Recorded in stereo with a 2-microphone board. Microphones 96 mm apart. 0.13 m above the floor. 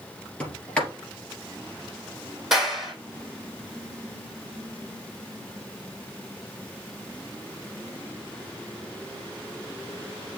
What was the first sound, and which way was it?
A sliding door, 10° left (ahead or behind).